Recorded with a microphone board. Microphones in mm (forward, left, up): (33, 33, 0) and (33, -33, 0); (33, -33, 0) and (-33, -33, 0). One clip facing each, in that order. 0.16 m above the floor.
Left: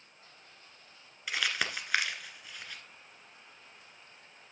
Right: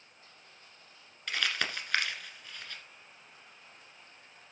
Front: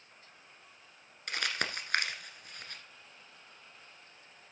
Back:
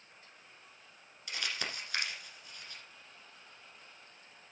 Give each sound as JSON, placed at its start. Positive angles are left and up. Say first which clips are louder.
{"t": 1.3, "sound": "crumpling", "louder": "even, front 4 dB", "azimuth_deg": 10, "distance_m": 1.5}